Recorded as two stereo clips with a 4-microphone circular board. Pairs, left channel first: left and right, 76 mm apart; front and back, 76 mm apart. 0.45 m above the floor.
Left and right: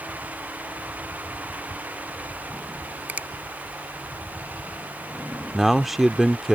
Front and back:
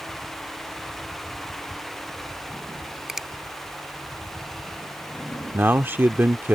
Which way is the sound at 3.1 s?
105° right.